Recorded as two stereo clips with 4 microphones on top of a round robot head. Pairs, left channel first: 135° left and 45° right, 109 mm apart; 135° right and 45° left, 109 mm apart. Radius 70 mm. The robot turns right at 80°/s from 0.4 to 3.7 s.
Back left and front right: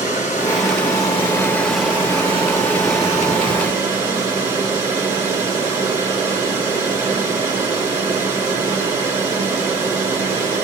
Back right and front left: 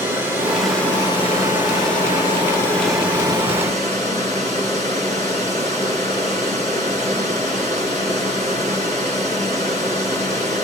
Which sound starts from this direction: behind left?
Running water, at 0.0 s.